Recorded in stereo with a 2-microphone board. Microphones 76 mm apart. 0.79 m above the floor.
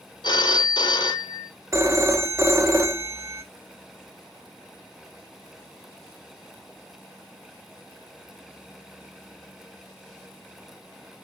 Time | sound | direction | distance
0.2 | a phone ringing | 70° left (ahead or behind) | 0.7 m
1.7 | a phone ringing | 40° right (ahead or behind) | 0.6 m